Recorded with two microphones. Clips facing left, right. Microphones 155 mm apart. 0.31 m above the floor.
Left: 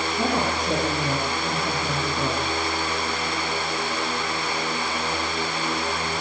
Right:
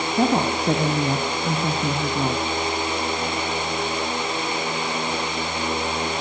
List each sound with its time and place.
0.1 s a woman speaking: 65° right (ahead or behind), 3 m